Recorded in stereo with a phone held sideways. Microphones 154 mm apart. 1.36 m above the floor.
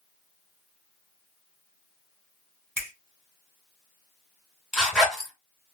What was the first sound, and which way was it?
A finger snap, 15° right (ahead or behind).